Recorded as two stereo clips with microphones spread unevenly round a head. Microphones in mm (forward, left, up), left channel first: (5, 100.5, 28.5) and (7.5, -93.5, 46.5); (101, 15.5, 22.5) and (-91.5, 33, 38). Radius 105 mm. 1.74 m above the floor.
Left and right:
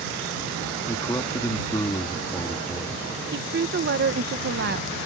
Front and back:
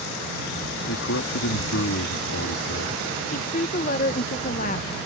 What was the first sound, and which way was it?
A man speaking, 15° left.